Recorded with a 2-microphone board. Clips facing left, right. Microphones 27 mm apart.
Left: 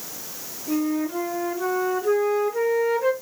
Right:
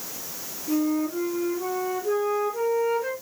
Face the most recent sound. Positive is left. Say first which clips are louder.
# even
turn(degrees=60)  # may be behind; listen again after turning